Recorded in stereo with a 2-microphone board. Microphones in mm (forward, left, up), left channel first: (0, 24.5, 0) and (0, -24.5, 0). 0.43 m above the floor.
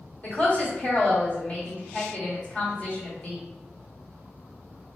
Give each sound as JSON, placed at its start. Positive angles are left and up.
{"t": 0.2, "sound": "a woman speaking", "side_deg": 35, "distance_m": 1.5}